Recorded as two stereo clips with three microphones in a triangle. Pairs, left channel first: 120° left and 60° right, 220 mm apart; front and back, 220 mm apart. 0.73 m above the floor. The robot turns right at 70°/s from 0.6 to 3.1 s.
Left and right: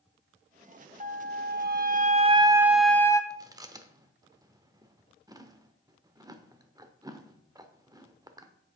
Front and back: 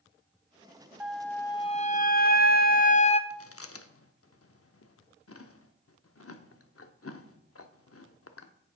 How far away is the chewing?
About 0.7 m.